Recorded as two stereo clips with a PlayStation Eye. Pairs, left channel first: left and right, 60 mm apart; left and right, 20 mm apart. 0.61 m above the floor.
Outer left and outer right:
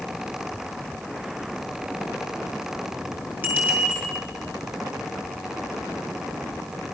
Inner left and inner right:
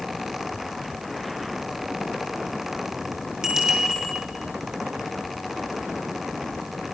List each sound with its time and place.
3.4 s a bicycle bell: 30° right (ahead or behind), 9.5 m